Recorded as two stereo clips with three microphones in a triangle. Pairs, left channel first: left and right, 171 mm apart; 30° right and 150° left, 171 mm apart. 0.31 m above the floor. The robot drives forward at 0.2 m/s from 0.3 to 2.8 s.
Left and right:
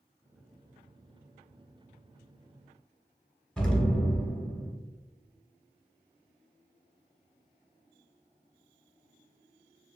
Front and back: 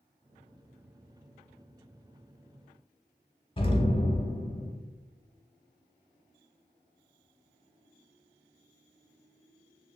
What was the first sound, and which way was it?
An explosion, 5° left.